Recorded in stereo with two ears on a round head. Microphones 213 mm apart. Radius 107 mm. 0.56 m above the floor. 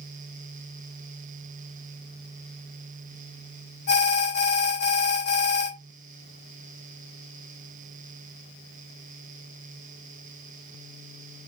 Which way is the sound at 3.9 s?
45° left (ahead or behind).